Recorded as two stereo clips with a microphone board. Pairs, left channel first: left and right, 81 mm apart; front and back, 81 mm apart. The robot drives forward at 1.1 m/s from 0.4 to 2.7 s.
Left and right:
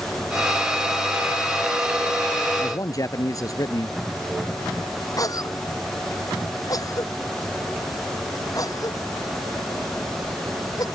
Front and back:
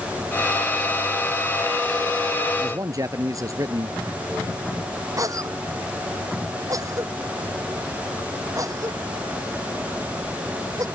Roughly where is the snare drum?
No snare drum in this recording.